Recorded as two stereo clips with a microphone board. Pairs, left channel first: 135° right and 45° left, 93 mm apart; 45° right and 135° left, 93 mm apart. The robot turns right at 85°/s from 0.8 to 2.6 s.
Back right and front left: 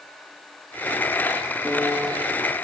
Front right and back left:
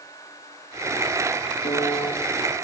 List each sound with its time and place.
1.6 s a piano: 50° right, 6 m; by 2.1 s 5° right, 6 m